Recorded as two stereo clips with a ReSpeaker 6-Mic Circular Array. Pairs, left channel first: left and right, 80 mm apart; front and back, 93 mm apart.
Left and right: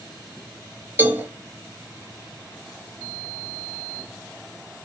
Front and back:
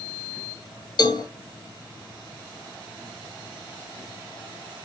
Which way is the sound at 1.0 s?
30° right.